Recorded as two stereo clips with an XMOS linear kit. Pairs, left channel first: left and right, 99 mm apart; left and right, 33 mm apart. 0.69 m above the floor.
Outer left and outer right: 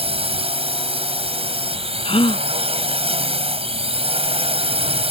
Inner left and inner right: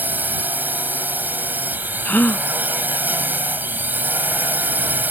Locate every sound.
0.0 s a drone: 75° right (ahead or behind)
2.0 s a gasp: 70° left (ahead or behind)